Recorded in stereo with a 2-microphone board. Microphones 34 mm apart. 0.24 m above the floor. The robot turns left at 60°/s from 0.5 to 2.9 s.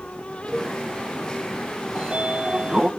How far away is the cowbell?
About 2.5 m.